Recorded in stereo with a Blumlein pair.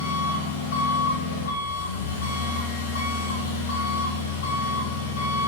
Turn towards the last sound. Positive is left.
turn(degrees=65)